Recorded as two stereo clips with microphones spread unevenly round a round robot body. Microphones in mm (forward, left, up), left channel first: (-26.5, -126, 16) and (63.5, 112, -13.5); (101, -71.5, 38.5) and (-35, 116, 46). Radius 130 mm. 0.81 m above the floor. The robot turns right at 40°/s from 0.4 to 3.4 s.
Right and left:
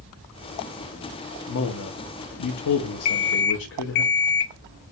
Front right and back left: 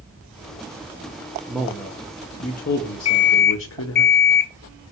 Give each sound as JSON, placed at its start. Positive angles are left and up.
{"t": 1.5, "sound": "a man speaking", "azimuth_deg": -145, "distance_m": 0.5}
{"t": 3.0, "sound": "an alarm clock", "azimuth_deg": -120, "distance_m": 0.6}